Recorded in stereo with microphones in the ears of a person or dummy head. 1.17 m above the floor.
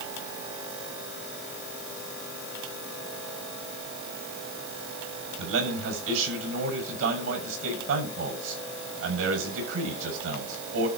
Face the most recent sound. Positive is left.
turn(degrees=-75)  # may be behind; listen again after turning